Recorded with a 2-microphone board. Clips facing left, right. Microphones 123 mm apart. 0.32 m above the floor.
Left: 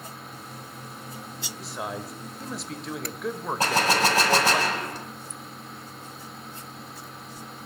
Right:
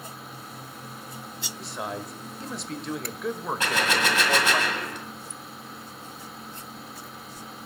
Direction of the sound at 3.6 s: 35° left (ahead or behind).